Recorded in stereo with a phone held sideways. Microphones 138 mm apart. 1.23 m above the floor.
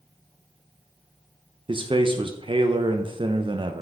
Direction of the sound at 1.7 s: 35° right (ahead or behind).